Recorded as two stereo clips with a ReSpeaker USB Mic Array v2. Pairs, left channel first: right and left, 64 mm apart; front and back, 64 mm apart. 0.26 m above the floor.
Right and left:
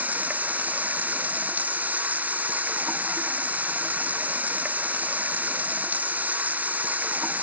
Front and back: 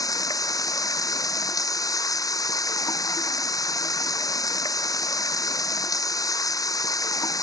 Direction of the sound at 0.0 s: 25° left.